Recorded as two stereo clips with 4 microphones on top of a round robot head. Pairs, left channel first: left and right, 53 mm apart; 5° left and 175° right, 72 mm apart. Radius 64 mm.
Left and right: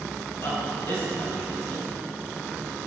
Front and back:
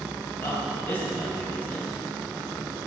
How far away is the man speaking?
About 2.5 m.